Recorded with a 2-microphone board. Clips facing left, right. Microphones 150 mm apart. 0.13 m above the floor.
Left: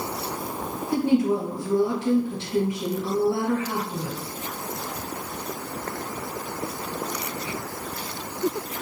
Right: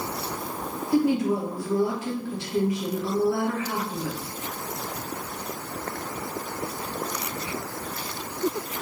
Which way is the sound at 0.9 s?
25° left (ahead or behind).